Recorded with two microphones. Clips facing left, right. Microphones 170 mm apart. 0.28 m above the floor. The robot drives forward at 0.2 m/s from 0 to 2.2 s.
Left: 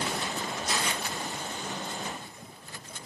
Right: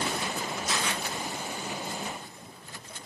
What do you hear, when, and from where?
0.7 s a camera shutter: 55° left (ahead or behind), 2.5 m